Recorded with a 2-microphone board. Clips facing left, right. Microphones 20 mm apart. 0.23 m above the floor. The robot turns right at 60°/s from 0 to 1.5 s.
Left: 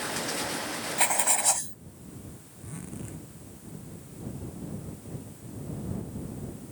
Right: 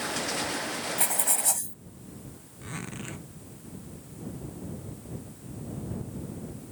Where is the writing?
30° left (ahead or behind); by 1.8 s 25° left (ahead or behind).